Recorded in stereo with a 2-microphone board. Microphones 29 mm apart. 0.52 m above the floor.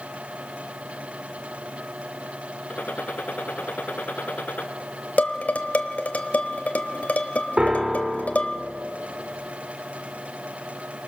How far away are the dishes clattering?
About 1.4 m.